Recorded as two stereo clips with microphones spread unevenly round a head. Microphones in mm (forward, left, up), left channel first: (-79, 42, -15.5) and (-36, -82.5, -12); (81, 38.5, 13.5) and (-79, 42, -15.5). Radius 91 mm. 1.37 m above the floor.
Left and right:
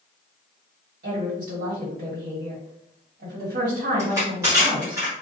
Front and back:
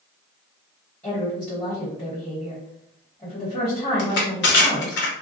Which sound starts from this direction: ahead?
Crushing, at 4.0 s.